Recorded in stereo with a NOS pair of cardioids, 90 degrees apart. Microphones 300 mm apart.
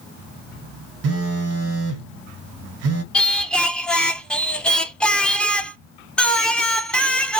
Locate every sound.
1.0 s a phone buzzing: 55° right, 0.9 m
3.1 s singing: 5° left, 0.6 m